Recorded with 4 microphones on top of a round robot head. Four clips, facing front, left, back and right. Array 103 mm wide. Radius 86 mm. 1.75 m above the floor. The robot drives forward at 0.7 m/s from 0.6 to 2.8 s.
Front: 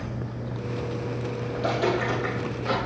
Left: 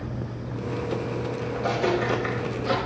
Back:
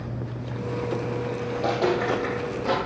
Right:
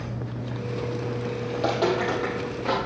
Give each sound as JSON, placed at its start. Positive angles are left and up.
{"t": 1.5, "sound": "footsteps", "azimuth_deg": -110, "distance_m": 3.0}